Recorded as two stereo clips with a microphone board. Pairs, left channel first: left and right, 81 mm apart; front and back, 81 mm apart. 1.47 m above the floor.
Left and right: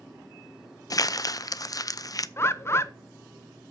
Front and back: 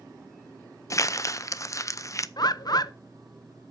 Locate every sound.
0.9 s crumpling: 50° left, 0.6 m
2.4 s a bird: 35° left, 0.7 m